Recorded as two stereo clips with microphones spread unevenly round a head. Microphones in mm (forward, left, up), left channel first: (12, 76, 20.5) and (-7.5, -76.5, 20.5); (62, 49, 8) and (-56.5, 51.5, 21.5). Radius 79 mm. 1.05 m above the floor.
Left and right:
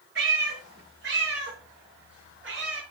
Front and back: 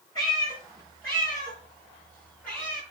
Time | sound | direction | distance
0.1 | a cat meowing | 75° right | 7 m